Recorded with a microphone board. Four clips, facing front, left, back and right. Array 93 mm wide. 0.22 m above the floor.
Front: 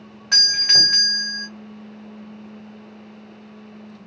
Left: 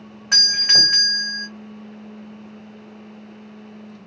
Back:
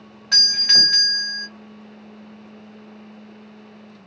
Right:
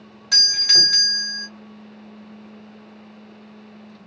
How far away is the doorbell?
About 1.8 m.